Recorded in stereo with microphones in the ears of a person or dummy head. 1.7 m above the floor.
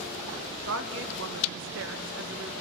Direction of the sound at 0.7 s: 70° right (ahead or behind).